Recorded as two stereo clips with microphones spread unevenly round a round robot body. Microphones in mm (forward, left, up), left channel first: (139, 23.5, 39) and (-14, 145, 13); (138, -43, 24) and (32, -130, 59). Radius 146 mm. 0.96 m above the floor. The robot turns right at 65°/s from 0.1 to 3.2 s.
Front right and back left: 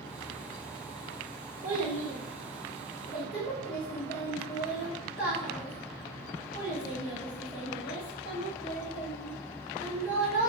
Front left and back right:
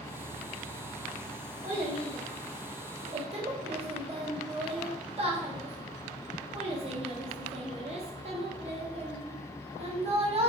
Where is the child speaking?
165° left, 1.2 m; by 10.5 s 95° right, 1.2 m.